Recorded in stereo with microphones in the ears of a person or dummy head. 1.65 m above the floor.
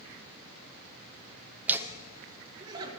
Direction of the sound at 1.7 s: 5° right (ahead or behind).